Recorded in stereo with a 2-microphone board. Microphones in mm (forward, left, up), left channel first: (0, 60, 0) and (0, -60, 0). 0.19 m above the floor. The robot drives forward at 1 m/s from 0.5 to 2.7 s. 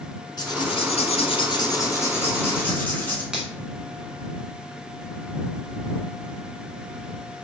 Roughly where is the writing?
Left.